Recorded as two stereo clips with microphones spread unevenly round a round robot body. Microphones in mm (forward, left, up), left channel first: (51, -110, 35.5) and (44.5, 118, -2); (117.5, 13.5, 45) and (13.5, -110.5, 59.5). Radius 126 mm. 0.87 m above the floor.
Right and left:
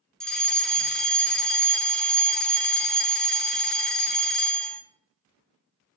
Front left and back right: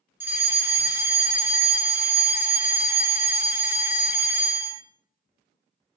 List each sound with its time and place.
0.2 s a fire alarm: 165° left, 1.6 m